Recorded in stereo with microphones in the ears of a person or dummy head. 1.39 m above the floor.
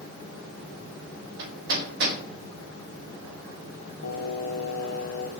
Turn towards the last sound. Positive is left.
turn(degrees=70)  # may be behind; listen again after turning